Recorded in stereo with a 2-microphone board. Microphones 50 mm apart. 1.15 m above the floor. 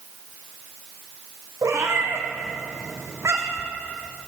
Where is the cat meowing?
75° right (ahead or behind), 5 m.